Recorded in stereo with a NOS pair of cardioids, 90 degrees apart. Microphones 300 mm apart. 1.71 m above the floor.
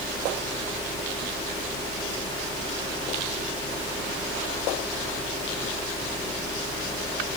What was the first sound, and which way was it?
A fan, 10° left.